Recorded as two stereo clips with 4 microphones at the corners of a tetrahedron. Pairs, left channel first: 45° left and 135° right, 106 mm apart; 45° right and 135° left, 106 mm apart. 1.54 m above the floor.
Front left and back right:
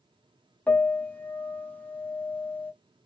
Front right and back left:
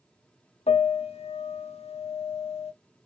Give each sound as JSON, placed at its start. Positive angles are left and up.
{"t": 0.7, "sound": "a piano", "azimuth_deg": -30, "distance_m": 0.6}